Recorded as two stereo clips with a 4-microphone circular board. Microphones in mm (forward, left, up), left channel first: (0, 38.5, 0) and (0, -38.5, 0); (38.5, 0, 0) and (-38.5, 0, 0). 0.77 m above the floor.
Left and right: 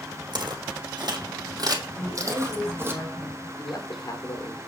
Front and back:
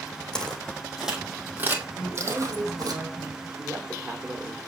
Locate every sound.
0.3 s footsteps: 80° right, 1.9 m; by 2.9 s 150° right, 2 m
1.9 s a woman speaking: 135° left, 5.5 m
3.6 s a man speaking: 125° left, 2.5 m